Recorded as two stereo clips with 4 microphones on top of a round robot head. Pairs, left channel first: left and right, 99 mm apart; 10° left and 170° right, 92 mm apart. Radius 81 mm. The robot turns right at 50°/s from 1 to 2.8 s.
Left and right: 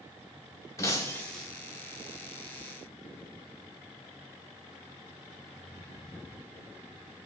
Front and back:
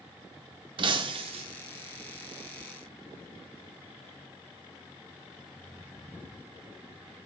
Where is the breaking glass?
160° left, 0.8 m; by 1.4 s straight behind, 0.8 m.